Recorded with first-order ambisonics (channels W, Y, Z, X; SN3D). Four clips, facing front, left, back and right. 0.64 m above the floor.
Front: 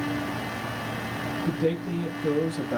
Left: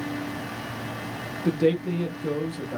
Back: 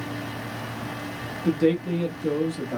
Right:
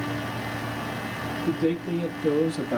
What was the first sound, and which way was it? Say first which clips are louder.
A man speaking: left 3 dB, back 6 dB; 115° left.